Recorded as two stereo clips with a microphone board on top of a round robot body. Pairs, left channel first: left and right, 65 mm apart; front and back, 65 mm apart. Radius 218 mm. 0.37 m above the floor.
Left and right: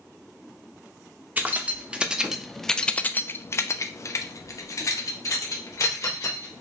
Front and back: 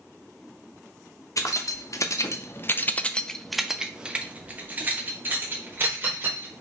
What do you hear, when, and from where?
1.4 s keys jangling: 25° right, 1.1 m; by 6.6 s 130° left, 2.0 m